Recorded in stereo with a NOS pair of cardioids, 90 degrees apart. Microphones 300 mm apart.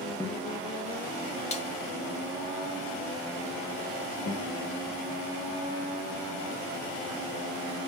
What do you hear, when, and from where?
0.2 s a guitar: 10° left, 1.9 m
1.5 s a snare drum: 20° left, 1.8 m
4.3 s a guitar: 55° left, 3 m